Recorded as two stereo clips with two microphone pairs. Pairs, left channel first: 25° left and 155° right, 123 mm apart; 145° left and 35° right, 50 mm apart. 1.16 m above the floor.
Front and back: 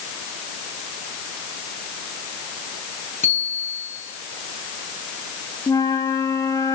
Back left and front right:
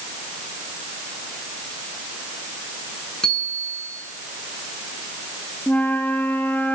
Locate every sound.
3.2 s a bicycle bell: 140° right, 8.5 m
5.7 s a flute: 85° left, 3 m